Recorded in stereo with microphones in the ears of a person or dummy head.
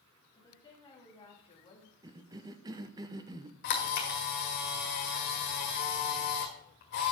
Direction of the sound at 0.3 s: 20° left (ahead or behind).